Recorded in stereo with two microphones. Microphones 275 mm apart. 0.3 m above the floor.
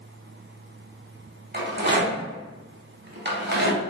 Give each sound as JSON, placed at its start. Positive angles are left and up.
{"t": 1.5, "sound": "a rattle", "side_deg": -40, "distance_m": 0.8}